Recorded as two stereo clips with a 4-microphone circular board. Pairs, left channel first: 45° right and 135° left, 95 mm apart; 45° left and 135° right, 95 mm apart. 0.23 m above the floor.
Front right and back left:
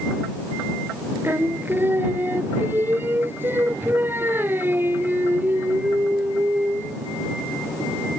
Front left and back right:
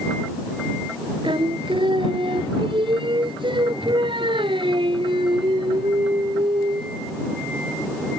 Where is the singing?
160° right.